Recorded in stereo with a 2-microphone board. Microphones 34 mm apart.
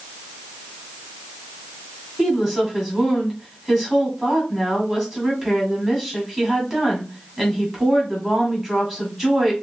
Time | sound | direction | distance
2.2 | a woman speaking | 20° right (ahead or behind) | 2 m